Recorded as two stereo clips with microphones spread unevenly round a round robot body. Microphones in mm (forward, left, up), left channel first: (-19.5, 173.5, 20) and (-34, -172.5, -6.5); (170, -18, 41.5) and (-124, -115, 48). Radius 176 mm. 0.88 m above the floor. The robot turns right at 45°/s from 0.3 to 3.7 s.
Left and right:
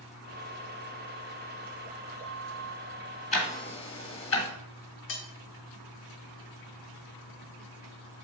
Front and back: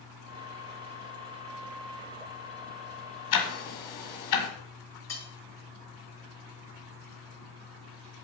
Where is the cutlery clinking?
100° left, 1.5 m.